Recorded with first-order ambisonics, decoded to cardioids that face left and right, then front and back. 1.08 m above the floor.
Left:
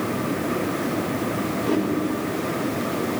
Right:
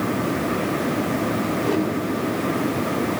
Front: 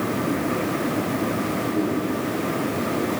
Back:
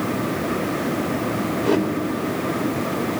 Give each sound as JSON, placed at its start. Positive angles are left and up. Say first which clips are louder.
{"t": 1.6, "sound": "a whoosh", "louder": "even, back 7 dB", "azimuth_deg": 175, "distance_m": 3.0}